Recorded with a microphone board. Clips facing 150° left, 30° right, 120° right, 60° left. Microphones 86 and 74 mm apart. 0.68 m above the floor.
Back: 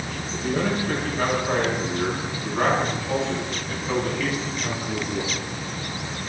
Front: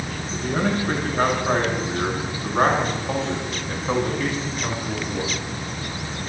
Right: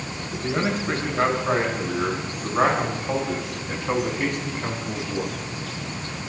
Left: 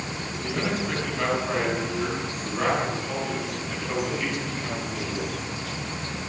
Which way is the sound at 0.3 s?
70° right.